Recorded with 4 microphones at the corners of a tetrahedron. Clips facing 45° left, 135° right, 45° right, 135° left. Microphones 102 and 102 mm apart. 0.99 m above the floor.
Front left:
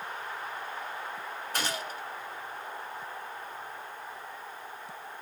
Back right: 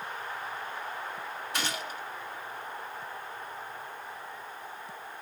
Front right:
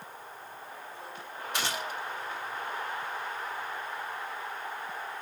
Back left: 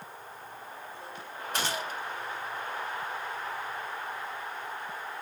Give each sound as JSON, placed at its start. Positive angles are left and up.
{"t": 1.5, "sound": "a gunshot", "azimuth_deg": 90, "distance_m": 1.6}